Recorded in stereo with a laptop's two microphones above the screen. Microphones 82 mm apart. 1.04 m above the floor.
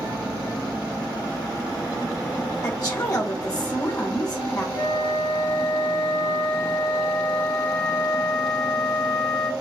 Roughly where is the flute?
Left.